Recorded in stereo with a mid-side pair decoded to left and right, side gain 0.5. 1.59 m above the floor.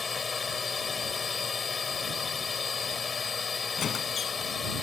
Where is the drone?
30° left; by 4.8 s 35° left.